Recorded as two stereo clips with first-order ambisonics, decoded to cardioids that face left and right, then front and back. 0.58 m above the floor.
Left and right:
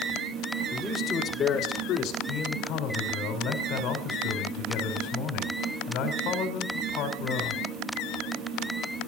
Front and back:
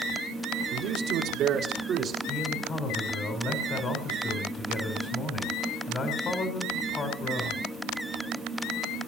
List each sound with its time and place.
0.7 s a man speaking: 170° right, 1.6 m; by 2.2 s 120° left, 1.9 m
2.3 s a man speaking: 65° left, 2.5 m